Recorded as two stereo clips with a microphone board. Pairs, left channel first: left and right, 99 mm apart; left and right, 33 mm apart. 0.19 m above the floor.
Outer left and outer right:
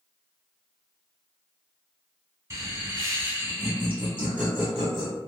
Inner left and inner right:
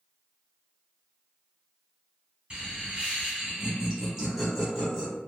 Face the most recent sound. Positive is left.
turn(degrees=0)  # may be behind; listen again after turning